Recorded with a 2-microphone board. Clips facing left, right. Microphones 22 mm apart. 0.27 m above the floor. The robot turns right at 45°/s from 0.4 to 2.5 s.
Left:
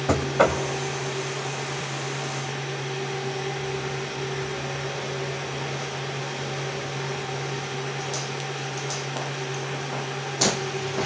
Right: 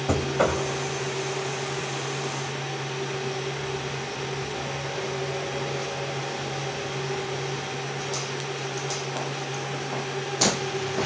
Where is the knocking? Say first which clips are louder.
Left 3 dB; 25° left (ahead or behind), 1.2 m.